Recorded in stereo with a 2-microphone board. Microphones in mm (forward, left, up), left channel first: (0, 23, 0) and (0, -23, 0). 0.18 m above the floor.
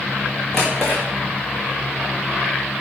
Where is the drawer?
10° left (ahead or behind), 4 m.